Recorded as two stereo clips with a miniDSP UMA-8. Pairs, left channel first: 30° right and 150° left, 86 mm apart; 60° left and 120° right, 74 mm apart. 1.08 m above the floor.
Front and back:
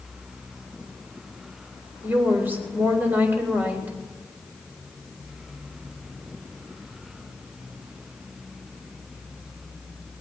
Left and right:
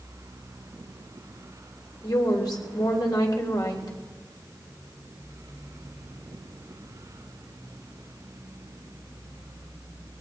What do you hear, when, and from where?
2.0 s a woman speaking: 85° left, 3.5 m